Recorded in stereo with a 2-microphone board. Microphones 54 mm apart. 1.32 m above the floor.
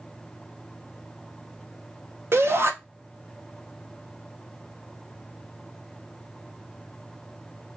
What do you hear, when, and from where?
2.3 s a shout: 50° right (ahead or behind), 1.0 m